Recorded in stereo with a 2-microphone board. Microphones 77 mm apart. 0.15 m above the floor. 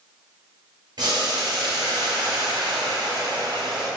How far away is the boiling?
About 1.8 m.